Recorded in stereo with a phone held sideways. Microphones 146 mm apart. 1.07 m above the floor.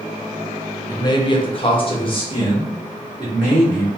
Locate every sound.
0.9 s a man speaking: 25° left (ahead or behind), 0.6 m